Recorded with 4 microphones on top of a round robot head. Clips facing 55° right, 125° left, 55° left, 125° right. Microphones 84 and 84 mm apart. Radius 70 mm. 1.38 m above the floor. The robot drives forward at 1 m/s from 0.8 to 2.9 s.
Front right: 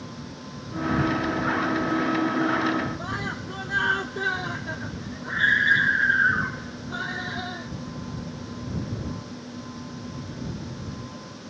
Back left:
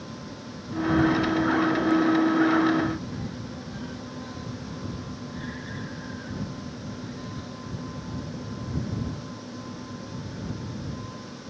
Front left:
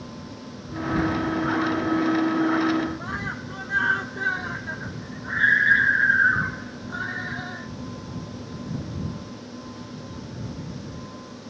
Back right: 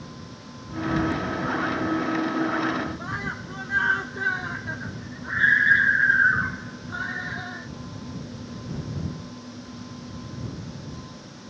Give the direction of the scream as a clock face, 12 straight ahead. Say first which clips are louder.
Front right 4 dB, even; 1 o'clock.